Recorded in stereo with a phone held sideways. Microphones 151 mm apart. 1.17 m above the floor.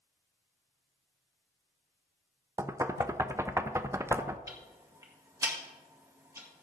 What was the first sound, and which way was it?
Knocking, 20° right (ahead or behind).